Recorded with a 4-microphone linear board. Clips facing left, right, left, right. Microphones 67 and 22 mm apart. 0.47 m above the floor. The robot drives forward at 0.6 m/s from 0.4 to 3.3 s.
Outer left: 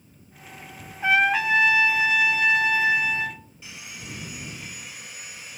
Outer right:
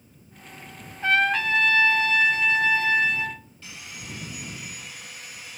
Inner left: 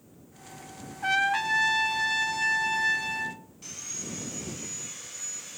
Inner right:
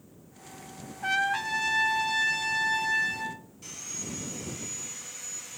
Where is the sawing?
15° left (ahead or behind), 2.5 m.